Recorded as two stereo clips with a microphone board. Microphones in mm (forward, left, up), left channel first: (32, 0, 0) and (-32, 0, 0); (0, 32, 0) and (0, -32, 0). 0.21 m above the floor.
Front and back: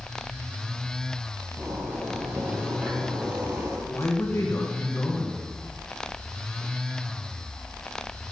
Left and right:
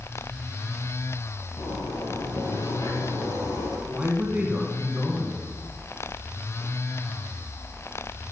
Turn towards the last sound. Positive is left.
turn(degrees=-25)